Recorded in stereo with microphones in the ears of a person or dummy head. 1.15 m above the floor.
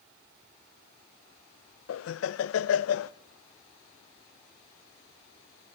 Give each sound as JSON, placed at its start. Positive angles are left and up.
{"t": 1.9, "sound": "laughter", "side_deg": 80, "distance_m": 0.7}